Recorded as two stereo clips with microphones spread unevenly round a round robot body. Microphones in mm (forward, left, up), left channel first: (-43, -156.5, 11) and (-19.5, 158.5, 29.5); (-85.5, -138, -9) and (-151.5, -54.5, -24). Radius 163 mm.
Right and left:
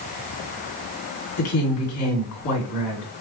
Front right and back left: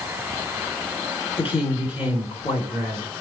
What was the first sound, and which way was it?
A woman speaking, 70° right.